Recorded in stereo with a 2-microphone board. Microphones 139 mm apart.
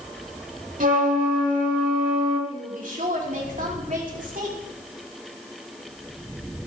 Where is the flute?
75° right (ahead or behind), 1.7 m.